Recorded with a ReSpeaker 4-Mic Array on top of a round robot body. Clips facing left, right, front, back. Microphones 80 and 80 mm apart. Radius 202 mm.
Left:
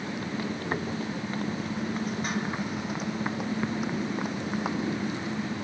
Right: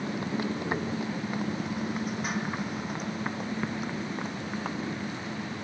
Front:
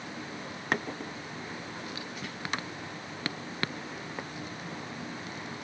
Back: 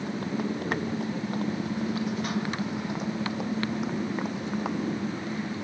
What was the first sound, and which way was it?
A motorcycle, 155° right.